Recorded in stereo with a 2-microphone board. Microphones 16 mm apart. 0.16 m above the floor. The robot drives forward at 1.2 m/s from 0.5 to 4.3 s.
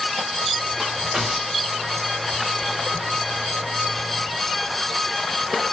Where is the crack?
70° right (ahead or behind), 3 m; by 1.9 s 50° right (ahead or behind), 3.5 m.